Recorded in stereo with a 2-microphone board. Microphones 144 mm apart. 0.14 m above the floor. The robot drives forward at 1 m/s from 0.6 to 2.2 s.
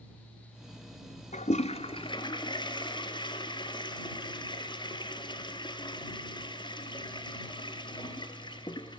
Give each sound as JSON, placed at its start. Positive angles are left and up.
{"t": 1.3, "sound": "a toilet flushing", "side_deg": 55, "distance_m": 0.8}